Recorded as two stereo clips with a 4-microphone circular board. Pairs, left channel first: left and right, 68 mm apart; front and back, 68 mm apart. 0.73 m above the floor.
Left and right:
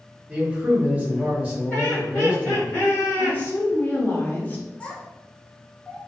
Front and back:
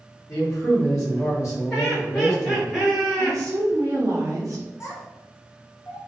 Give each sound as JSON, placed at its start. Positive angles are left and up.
{"t": 0.3, "sound": "a man speaking", "azimuth_deg": -25, "distance_m": 1.1}
{"t": 1.7, "sound": "laughter", "azimuth_deg": 80, "distance_m": 1.1}
{"t": 3.2, "sound": "a woman speaking", "azimuth_deg": 150, "distance_m": 0.8}
{"t": 4.8, "sound": "a child speaking", "azimuth_deg": 20, "distance_m": 0.7}